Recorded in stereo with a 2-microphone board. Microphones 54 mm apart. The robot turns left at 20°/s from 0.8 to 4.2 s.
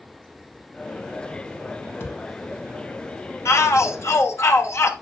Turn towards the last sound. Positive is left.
turn(degrees=55)  # may be behind; listen again after turning